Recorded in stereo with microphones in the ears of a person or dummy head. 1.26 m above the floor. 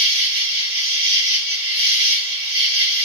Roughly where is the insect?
Right.